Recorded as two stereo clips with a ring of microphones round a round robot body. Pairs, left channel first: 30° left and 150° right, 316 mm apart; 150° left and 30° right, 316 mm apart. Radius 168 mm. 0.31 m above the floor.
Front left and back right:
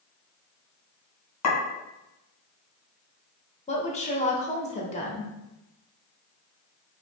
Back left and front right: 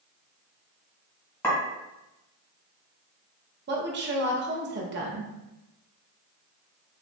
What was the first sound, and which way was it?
A clink, 70° left.